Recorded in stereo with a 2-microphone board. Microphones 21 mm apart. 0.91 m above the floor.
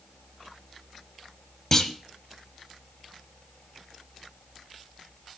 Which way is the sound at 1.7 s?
25° left (ahead or behind).